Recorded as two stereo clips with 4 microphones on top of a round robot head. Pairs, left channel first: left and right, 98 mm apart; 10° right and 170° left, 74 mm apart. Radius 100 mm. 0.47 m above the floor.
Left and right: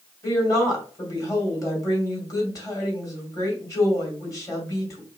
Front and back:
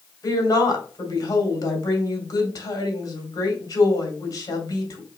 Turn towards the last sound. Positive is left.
turn(degrees=30)